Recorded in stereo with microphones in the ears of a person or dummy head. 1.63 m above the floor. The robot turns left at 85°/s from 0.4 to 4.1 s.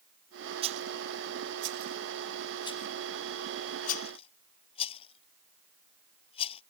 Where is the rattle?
35° right (ahead or behind); by 6.6 s 30° left (ahead or behind).